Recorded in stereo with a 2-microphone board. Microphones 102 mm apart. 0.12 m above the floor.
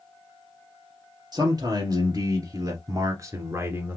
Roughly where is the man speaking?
Right.